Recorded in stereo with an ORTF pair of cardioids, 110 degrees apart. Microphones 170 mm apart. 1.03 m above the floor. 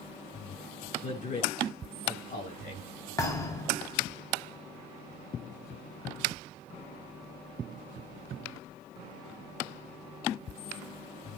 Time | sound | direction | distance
1.0 | a man speaking | 50° left | 8.5 m
3.2 | a thud | 20° left | 3.5 m